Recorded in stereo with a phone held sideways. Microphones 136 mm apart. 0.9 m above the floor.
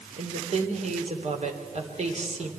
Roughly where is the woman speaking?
Right.